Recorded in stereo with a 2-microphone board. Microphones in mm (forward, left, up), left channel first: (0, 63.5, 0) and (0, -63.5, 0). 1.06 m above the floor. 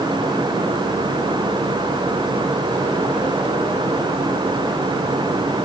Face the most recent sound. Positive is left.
No sound to turn to.